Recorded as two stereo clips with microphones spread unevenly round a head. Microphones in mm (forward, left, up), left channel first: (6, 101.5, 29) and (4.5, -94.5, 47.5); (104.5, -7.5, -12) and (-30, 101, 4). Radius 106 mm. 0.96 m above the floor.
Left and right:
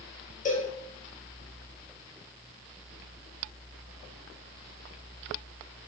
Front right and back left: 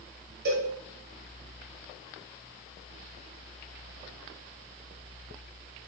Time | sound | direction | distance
0.5 | a cowbell | 130° left | 0.7 m